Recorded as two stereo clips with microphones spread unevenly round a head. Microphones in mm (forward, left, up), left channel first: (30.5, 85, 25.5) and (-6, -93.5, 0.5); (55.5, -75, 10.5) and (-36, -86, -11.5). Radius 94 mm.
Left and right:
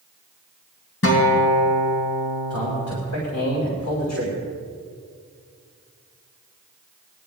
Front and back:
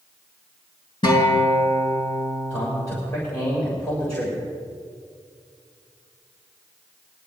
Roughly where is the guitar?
Ahead left.